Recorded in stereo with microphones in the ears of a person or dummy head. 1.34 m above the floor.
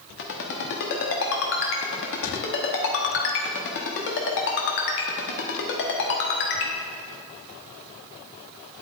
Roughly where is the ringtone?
Left.